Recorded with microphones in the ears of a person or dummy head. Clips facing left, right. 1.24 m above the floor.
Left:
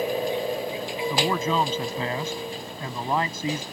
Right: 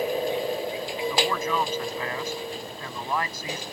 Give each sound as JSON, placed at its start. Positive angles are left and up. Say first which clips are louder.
{"t": 1.1, "sound": "a man speaking", "louder": "left 3 dB", "side_deg": 25}